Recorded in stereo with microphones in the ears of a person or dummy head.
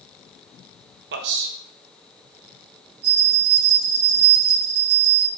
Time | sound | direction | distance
1.1 | a man speaking | 60° right (ahead or behind) | 0.9 m
3.0 | a bell | 60° right (ahead or behind) | 3 m